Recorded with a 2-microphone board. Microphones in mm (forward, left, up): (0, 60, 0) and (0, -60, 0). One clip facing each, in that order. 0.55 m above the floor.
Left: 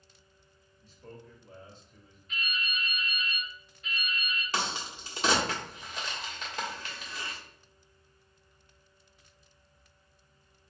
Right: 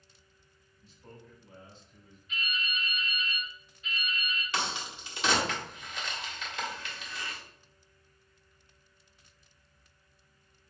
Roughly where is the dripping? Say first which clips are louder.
Even; left.